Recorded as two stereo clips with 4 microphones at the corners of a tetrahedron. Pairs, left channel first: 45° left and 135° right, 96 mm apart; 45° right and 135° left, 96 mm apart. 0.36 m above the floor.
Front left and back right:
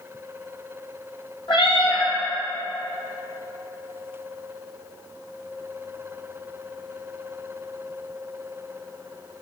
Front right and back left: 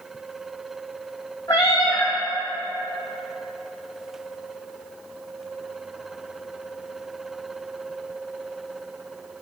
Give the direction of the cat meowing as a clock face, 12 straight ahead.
12 o'clock.